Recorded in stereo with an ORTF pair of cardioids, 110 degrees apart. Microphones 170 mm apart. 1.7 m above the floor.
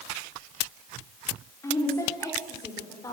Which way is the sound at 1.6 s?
15° left.